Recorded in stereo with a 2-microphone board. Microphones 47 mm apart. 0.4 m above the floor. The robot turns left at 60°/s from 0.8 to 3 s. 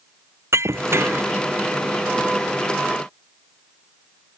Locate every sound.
0.5 s breaking glass: 75° right (ahead or behind); by 1.3 s 45° right (ahead or behind)